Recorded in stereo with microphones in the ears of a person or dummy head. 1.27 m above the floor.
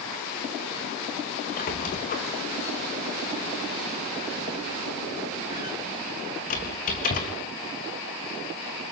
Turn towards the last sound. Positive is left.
turn(degrees=40)  # may be behind; listen again after turning